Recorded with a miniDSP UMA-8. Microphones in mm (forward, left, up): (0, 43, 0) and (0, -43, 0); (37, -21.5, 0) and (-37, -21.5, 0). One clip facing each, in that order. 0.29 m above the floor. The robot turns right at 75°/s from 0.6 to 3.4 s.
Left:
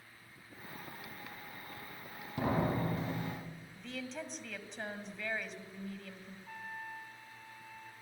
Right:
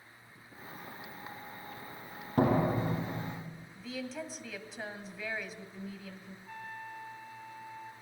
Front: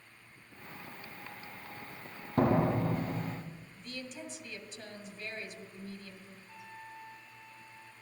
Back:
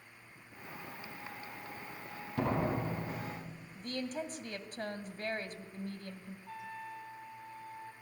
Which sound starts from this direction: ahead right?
A door slam, at 2.4 s.